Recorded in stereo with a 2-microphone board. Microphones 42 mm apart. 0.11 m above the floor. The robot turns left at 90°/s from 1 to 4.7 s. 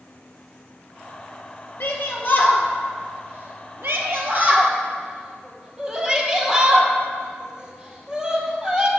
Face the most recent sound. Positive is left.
turn(degrees=-20)  # may be behind; listen again after turning